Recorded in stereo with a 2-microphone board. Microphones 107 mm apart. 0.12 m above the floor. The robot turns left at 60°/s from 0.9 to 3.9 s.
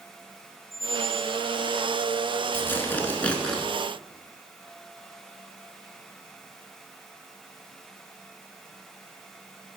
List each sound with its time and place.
0.7 s a squeak: 70° left (ahead or behind), 1.6 m; by 1.4 s 75° left (ahead or behind), 1.6 m
2.5 s tearing paper: 20° left (ahead or behind), 1.0 m; by 3.6 s 5° left (ahead or behind), 1.0 m